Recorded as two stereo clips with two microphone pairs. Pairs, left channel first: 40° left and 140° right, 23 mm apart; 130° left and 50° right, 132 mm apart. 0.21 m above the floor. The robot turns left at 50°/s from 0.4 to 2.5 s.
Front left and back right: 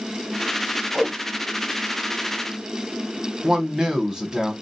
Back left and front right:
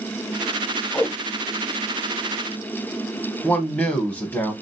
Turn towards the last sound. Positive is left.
turn(degrees=-165)